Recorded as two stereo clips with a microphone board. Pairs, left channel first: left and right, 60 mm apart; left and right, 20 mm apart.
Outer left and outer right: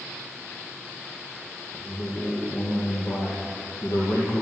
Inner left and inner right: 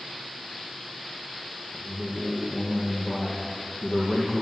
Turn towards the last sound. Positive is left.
turn(degrees=60)  # may be behind; listen again after turning